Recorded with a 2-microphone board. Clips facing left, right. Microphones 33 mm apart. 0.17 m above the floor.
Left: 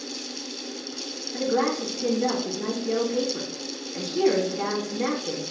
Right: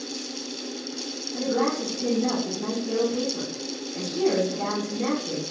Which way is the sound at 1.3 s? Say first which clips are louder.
Left 1 dB; 25° left (ahead or behind).